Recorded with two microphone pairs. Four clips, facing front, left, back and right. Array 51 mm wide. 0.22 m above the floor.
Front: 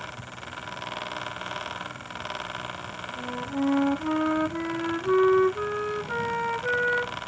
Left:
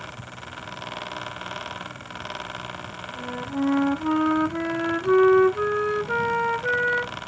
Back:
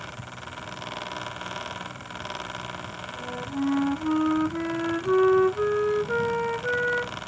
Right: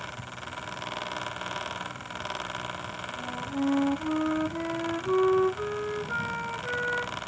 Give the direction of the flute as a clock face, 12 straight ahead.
9 o'clock.